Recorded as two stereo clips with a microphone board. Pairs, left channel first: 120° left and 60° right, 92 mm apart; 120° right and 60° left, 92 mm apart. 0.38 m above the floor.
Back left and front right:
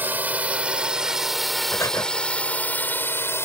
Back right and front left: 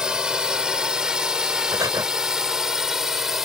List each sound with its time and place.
0.0 s a drone: 15° right; by 3.5 s 140° left
1.7 s breathing: 80° left